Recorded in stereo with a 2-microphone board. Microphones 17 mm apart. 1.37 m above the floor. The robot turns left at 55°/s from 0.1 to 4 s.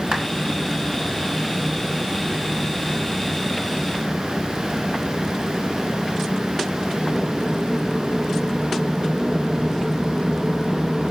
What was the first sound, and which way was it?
A clap, 80° right.